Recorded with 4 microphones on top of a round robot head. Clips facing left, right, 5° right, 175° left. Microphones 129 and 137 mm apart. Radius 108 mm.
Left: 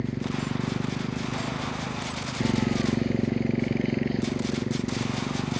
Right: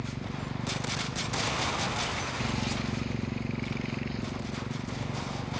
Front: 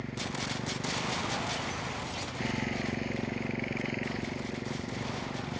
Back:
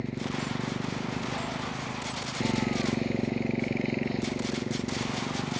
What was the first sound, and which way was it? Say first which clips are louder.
A motorcycle: left 8 dB, back 5 dB; 115° left.